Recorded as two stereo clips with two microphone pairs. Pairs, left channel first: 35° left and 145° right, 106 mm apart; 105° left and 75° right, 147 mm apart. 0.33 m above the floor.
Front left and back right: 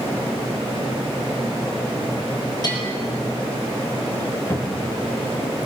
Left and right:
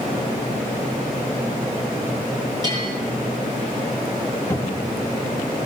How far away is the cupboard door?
About 1.5 m.